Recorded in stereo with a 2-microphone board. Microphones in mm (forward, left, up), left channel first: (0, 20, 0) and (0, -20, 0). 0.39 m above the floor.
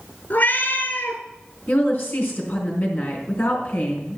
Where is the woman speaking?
50° left (ahead or behind), 4 m.